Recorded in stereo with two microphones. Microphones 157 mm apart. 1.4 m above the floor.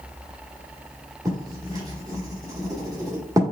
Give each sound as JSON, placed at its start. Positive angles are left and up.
{"t": 1.2, "sound": "writing", "side_deg": -20, "distance_m": 1.4}